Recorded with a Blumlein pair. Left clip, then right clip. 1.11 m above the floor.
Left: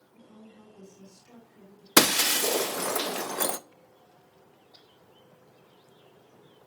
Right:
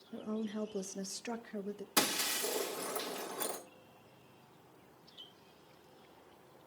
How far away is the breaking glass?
About 0.5 m.